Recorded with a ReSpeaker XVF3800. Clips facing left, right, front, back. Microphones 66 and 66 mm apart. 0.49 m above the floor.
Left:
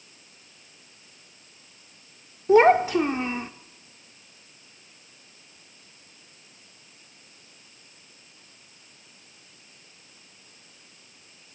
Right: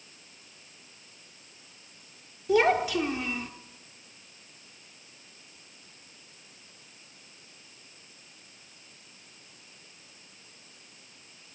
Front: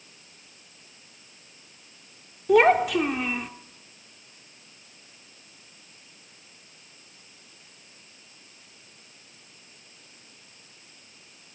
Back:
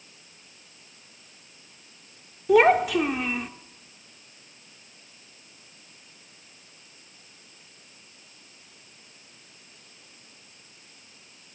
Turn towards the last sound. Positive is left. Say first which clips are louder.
# left 7 dB, even
turn(degrees=90)